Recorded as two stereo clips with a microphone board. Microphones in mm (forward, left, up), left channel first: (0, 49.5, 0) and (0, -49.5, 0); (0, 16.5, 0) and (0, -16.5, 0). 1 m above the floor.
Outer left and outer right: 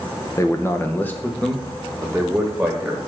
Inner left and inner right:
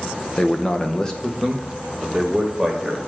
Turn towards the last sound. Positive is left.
turn(degrees=0)  # may be behind; listen again after turning